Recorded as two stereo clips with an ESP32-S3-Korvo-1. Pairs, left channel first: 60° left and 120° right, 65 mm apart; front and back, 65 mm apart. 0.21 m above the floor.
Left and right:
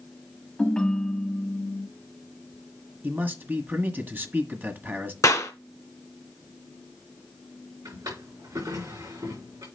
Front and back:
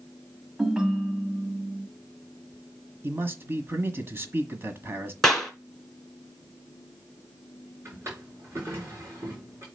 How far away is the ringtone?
About 0.9 m.